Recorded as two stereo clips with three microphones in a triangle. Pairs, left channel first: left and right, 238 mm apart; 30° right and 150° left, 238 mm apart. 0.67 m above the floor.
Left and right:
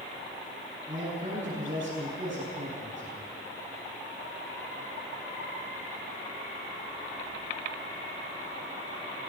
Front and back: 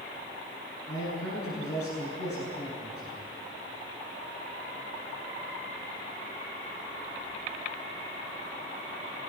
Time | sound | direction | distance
0.9 | a man speaking | 30° right | 8 m